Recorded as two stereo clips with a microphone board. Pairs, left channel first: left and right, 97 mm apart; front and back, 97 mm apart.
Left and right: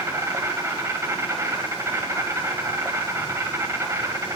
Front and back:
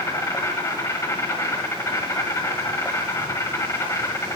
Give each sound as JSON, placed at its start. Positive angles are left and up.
{"t": 0.0, "sound": "an insect", "azimuth_deg": -45, "distance_m": 1.8}